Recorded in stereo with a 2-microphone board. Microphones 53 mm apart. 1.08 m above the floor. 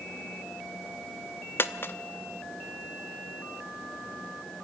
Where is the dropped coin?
45° left (ahead or behind), 0.8 m.